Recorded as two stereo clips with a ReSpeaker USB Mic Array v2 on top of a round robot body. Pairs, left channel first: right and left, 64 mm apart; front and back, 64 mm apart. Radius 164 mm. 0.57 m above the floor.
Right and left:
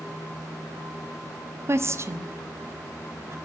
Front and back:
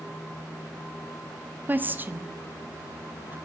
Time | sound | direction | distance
1.7 | a woman speaking | 125° left | 1.2 m